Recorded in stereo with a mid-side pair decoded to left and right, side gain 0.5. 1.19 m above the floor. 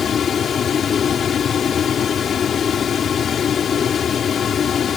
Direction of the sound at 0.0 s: 45° left.